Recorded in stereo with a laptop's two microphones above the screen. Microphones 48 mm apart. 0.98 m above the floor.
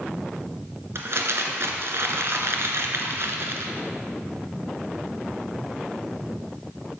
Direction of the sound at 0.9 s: 60° right (ahead or behind).